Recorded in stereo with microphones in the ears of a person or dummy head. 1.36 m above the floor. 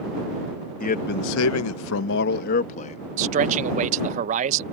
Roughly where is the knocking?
No knocking in this recording.